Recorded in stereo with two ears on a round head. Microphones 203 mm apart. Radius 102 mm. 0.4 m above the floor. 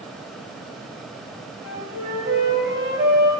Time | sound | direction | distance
1.6 | a flute | 15° right (ahead or behind) | 4 m